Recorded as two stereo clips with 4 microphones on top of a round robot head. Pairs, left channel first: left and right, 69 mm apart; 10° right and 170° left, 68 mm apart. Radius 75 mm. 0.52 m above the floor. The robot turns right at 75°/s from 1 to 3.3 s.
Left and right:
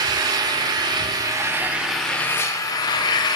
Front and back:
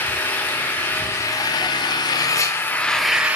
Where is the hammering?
No hammering in this recording.